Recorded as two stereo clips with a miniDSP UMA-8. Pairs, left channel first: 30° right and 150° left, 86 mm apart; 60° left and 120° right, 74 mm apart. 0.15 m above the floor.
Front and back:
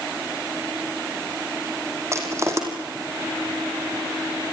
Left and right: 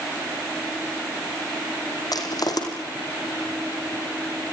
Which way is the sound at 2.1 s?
95° left.